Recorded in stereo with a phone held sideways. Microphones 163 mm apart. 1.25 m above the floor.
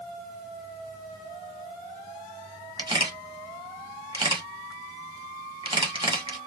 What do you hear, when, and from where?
2.8 s a camera shutter: 25° right (ahead or behind), 1.3 m